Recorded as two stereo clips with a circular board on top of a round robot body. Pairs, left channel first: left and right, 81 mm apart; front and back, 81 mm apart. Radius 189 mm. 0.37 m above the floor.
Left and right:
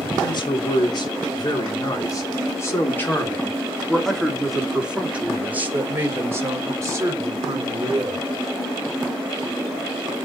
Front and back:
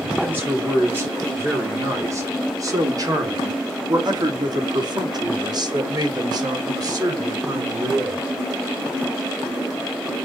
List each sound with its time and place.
0.2 s a man speaking: 115° left, 3 m; by 8.2 s 130° right, 3.5 m